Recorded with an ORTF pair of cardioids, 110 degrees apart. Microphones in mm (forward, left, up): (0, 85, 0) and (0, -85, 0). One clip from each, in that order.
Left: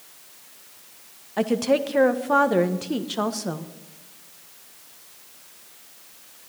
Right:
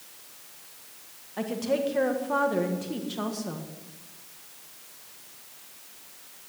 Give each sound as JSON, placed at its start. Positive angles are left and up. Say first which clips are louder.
{"t": 1.4, "sound": "a woman speaking", "louder": "left 6 dB", "azimuth_deg": 40, "distance_m": 1.4}